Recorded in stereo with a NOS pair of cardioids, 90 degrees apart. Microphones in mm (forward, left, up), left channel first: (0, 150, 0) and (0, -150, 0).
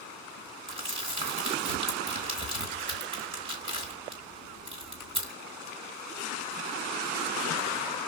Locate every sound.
0.7 s crumpling: 20° right, 3.5 m